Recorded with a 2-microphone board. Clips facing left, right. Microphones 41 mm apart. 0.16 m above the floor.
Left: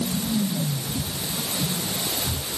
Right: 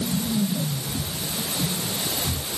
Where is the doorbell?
No doorbell in this recording.